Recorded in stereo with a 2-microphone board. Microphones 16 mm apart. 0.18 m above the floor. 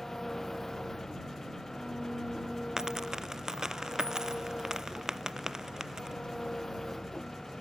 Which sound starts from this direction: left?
An engine running, at 0.0 s.